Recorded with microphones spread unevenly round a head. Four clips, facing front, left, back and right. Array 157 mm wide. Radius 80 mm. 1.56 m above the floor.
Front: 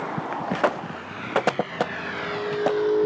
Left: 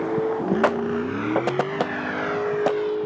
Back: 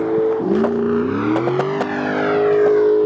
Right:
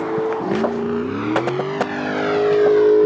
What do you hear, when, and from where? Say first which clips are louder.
0.0 s a vehicle: right 3 dB, back 12 dB; 170° right; by 3.1 s 110° right